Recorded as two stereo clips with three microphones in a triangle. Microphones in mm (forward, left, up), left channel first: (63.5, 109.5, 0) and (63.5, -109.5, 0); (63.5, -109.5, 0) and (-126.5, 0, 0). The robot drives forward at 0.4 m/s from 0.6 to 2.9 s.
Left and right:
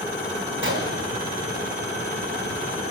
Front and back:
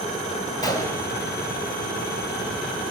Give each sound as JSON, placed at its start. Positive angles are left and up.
{"t": 0.6, "sound": "a gunshot", "azimuth_deg": -100, "distance_m": 1.9}